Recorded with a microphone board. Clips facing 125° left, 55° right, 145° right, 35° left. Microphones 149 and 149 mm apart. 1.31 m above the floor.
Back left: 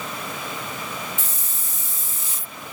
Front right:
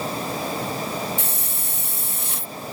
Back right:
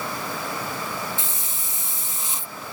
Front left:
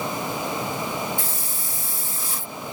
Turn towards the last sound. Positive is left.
turn(degrees=-80)